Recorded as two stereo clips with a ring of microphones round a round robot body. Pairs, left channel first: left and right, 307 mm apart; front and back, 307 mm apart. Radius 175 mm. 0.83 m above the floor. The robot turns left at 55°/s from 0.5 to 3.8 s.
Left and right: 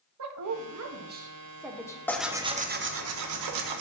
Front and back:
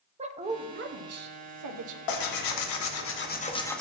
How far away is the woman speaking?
About 1.1 m.